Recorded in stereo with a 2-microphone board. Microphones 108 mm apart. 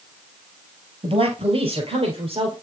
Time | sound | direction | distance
1.0 | a man speaking | 55° right (ahead or behind) | 2 m